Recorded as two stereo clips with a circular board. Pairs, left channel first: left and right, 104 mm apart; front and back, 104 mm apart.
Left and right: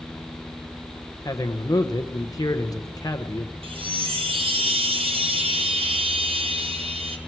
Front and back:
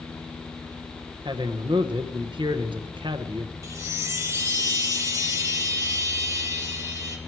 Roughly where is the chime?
Behind right.